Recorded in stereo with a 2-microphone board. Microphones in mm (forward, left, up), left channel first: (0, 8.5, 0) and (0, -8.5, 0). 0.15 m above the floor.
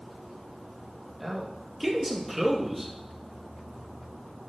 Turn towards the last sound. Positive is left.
turn(degrees=-10)  # may be behind; listen again after turning